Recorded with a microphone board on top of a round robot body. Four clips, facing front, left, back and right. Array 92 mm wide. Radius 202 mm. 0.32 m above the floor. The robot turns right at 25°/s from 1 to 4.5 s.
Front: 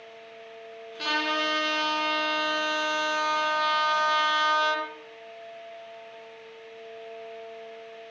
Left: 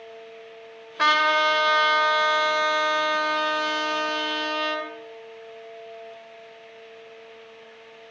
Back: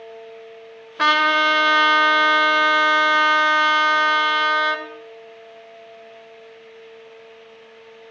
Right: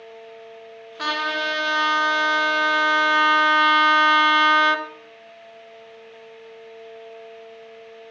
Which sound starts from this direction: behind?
A trumpet, at 1.0 s.